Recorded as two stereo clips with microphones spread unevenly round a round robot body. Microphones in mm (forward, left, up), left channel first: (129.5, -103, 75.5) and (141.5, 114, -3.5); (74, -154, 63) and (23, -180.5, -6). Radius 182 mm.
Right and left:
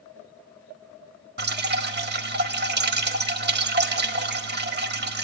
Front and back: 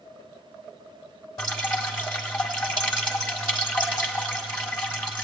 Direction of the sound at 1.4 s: 40° left.